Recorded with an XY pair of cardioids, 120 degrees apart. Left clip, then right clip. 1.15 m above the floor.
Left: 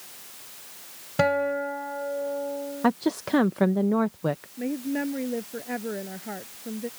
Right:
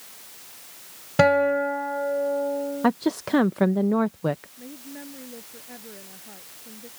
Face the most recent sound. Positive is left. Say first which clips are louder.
# left 12 dB
turn(degrees=60)